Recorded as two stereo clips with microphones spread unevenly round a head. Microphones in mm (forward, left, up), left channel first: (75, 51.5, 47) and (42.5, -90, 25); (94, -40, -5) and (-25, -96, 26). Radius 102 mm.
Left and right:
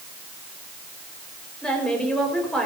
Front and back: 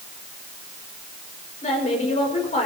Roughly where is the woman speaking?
Ahead.